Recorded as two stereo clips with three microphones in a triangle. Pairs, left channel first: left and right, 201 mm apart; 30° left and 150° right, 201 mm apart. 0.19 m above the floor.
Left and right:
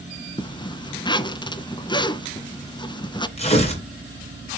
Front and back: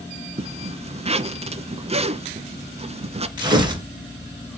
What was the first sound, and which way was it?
A zipper, 160° left.